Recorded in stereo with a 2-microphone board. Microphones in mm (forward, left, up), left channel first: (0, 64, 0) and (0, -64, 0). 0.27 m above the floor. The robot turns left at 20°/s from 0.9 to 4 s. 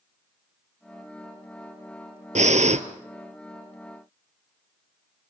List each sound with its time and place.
2.4 s breathing: 75° right (ahead or behind), 1.2 m; by 2.8 s 65° right (ahead or behind), 1.2 m